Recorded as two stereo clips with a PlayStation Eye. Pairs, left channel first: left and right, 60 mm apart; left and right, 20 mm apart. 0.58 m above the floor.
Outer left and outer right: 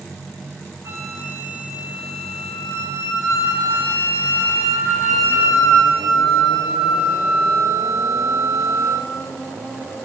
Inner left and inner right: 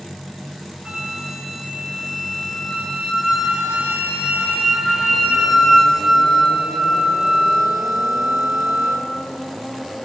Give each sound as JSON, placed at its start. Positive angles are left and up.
{"t": 0.8, "sound": "a flute", "side_deg": -55, "distance_m": 8.5}